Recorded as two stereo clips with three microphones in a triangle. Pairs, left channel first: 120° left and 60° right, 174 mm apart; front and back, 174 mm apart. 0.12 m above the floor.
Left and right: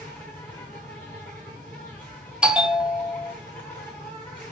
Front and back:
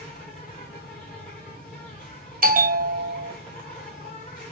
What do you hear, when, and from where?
0.0 s an insect: 40° left, 3 m
2.4 s a bell: 145° right, 0.5 m